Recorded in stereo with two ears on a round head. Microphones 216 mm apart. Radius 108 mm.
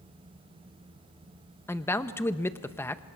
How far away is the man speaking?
About 0.8 m.